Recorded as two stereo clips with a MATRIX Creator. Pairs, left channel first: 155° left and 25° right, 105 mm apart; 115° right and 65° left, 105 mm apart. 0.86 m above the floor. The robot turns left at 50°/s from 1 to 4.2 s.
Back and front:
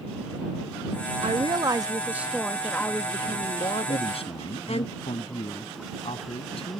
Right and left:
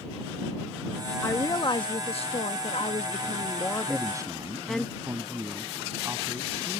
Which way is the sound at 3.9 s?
145° left.